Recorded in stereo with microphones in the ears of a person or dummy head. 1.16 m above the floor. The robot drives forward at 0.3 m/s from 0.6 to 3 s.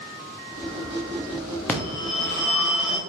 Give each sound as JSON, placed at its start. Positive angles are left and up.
{"t": 1.7, "sound": "a phone ringing", "side_deg": 10, "distance_m": 0.8}